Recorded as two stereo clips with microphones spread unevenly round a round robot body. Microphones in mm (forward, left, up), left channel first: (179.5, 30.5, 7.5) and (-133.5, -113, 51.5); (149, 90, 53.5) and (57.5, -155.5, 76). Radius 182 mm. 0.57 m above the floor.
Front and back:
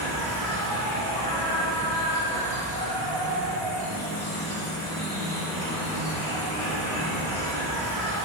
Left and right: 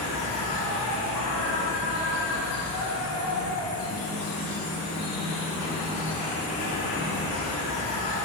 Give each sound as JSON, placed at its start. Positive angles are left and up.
{"t": 0.0, "sound": "an insect", "azimuth_deg": 105, "distance_m": 1.9}